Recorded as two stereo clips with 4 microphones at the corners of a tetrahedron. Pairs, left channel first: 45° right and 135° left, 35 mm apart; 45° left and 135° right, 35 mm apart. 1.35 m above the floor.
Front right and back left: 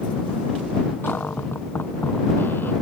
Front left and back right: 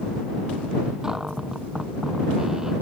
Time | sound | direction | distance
1.0 | a cupboard door | 60° right | ?